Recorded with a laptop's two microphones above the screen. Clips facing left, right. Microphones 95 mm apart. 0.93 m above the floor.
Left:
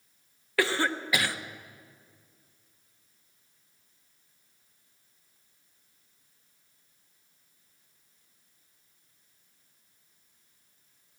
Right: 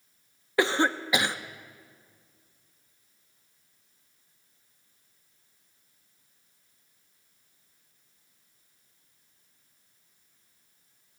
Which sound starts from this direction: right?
A cough, at 0.6 s.